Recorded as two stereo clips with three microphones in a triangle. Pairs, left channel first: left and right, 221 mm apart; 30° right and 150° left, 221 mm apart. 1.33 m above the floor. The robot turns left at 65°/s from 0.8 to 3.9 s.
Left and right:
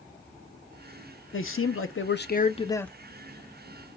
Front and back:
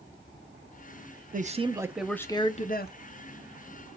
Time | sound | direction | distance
1.3 | a man speaking | 105° left | 0.6 m